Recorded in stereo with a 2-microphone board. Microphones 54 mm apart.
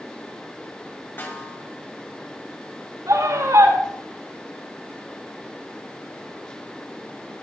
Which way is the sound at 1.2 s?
40° left (ahead or behind).